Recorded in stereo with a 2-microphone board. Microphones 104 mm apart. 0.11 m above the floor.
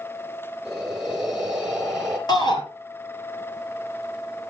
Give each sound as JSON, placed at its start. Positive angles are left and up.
{"t": 0.7, "sound": "breathing", "side_deg": -5, "distance_m": 2.0}
{"t": 2.3, "sound": "a shout", "side_deg": 45, "distance_m": 3.0}